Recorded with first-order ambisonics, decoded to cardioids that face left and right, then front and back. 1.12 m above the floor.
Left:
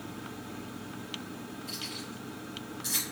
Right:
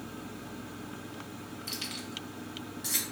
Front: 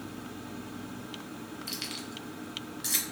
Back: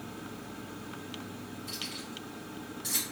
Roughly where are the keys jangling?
Ahead right.